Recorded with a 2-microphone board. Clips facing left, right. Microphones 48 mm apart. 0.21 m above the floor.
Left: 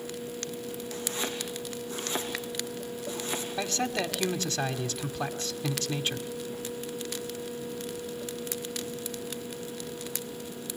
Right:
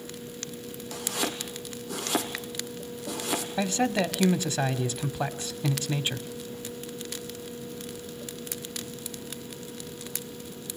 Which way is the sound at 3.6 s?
15° right (ahead or behind).